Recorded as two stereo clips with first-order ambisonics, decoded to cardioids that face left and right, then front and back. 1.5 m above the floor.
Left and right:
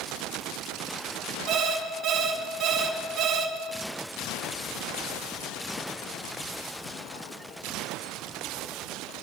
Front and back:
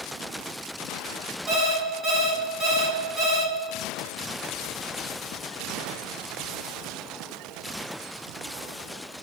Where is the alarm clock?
135° right, 2.5 m.